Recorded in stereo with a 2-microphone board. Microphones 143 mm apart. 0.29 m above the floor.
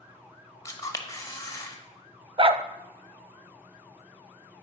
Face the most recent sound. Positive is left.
turn(degrees=-45)  # may be behind; listen again after turning